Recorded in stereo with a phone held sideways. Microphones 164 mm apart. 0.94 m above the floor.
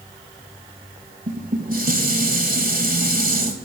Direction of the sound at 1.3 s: 60° right (ahead or behind).